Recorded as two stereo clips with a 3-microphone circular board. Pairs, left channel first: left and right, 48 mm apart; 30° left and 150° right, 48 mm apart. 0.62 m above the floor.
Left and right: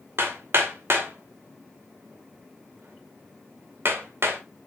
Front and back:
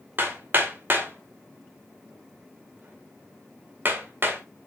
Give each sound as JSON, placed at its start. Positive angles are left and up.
{"t": 0.2, "sound": "hammering", "azimuth_deg": -110, "distance_m": 2.0}